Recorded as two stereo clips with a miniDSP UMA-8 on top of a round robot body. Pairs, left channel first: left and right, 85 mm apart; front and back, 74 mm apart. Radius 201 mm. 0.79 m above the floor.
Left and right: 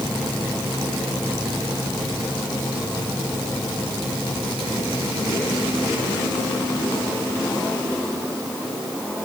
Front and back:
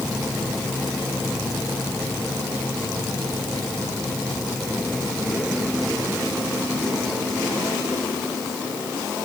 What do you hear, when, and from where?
Only background noise.